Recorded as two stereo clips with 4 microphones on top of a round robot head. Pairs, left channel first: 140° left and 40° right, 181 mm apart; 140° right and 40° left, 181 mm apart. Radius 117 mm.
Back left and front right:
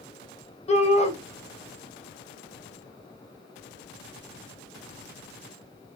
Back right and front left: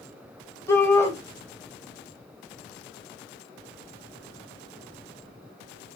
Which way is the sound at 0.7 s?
155° left.